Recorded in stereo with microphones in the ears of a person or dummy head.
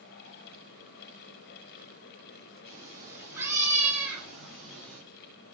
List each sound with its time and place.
2.6 s a cat meowing: 25° right (ahead or behind), 3 m; by 5.0 s 10° left (ahead or behind), 3 m